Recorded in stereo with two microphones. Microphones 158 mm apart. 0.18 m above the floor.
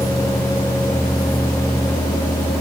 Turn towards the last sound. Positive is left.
No sound to turn to.